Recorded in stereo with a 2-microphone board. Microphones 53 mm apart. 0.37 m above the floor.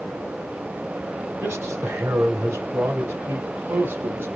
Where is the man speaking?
50° right (ahead or behind), 2 m.